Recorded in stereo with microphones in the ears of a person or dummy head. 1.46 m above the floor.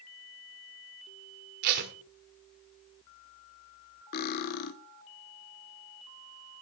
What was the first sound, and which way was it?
Tape being pulled, 55° right (ahead or behind).